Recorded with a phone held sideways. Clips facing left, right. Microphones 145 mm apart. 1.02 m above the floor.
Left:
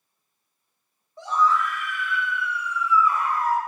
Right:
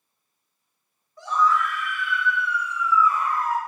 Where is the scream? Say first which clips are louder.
Even; 25° left (ahead or behind), 2.5 m; by 3.6 s 70° left (ahead or behind), 1.9 m.